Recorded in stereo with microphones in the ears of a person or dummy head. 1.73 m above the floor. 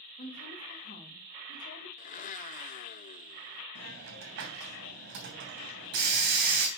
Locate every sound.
0.2 s a woman speaking: 40° left (ahead or behind), 3 m
2.0 s a blender: 40° left (ahead or behind), 0.7 m
3.8 s a hiss: 55° right (ahead or behind), 3 m